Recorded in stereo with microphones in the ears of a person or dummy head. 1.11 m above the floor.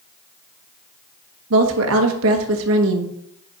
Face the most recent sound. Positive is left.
turn(degrees=-70)  # may be behind; listen again after turning